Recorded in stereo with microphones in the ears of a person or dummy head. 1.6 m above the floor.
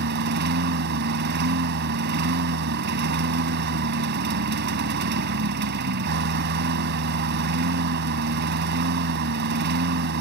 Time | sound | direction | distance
0.0 | a lawn mower | 50° right (ahead or behind) | ?